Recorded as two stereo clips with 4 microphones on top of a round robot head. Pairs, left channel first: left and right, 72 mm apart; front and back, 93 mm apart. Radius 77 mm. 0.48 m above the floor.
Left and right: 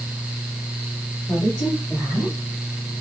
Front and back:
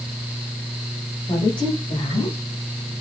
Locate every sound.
1.3 s a woman speaking: 30° left, 2 m; by 2.4 s straight ahead, 2.0 m